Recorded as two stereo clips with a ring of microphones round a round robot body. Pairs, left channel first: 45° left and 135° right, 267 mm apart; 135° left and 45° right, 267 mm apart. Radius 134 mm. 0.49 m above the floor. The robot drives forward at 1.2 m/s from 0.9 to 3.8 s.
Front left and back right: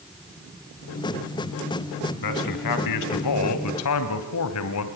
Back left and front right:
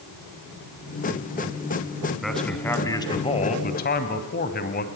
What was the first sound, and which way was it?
A man speaking, 45° left.